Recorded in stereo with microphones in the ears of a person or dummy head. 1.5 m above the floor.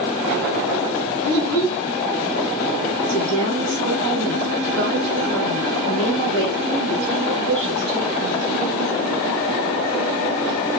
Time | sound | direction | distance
1.2 | a child speaking | 15° left (ahead or behind) | 1.6 m
3.1 | a woman speaking | 65° right (ahead or behind) | 1.5 m